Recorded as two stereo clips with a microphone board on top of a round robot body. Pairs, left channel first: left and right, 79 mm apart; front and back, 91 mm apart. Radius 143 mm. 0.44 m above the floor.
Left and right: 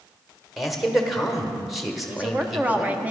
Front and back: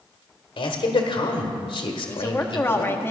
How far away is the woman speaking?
About 1.1 m.